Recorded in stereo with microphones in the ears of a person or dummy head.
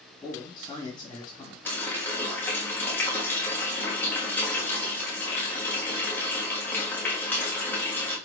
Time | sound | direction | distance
0.2 | a man speaking | 20° left (ahead or behind) | 1.4 m
1.6 | a running tap | 10° left (ahead or behind) | 1.2 m